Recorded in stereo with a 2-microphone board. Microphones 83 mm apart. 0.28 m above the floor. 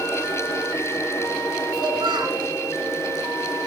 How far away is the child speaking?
About 2.5 m.